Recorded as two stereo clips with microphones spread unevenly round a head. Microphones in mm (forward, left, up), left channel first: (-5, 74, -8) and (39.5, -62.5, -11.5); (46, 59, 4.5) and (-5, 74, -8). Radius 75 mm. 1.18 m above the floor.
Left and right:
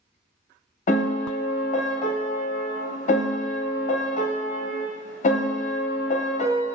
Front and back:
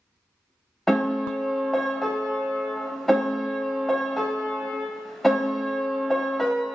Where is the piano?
65° left, 0.6 m.